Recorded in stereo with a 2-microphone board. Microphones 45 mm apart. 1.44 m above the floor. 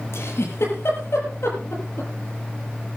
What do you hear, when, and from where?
0.1 s a giggle: 75° left (ahead or behind), 7 m